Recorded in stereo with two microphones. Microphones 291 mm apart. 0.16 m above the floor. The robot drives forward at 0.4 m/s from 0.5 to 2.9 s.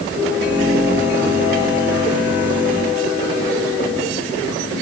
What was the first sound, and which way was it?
Only background noise.